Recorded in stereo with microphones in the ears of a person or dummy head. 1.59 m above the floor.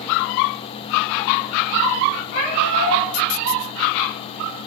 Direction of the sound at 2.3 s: 35° left (ahead or behind).